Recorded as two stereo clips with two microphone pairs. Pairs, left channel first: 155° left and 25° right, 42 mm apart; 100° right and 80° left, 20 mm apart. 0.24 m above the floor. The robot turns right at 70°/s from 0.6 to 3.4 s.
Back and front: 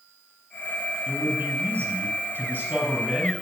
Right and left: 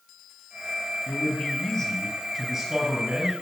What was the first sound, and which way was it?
A man speaking, 105° right.